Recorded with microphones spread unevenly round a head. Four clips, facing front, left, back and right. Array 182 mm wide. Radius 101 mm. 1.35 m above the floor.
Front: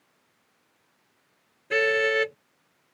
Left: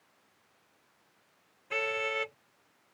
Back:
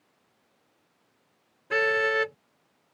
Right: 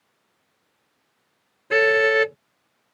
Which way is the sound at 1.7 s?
85° right.